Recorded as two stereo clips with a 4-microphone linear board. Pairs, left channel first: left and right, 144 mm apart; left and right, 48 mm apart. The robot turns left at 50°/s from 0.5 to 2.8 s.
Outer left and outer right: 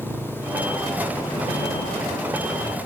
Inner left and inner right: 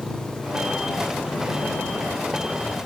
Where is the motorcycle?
165° right; by 2.9 s 80° left.